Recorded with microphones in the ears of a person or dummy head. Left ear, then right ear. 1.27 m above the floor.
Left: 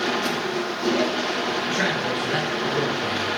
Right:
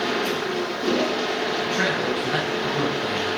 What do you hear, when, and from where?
0.0 s a machine running: 80° left, 1.2 m
1.7 s a man speaking: centre (ahead or behind), 1.2 m